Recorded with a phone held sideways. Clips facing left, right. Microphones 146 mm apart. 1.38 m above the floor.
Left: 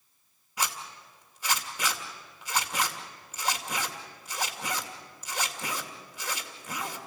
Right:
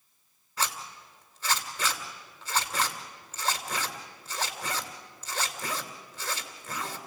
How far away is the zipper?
About 2.5 m.